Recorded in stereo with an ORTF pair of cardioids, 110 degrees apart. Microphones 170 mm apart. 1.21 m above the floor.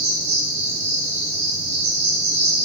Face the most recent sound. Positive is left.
turn(degrees=-40)